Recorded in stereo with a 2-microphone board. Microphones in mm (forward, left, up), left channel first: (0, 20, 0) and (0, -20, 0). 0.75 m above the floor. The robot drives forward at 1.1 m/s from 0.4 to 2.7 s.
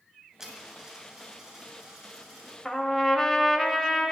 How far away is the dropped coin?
About 2.5 m.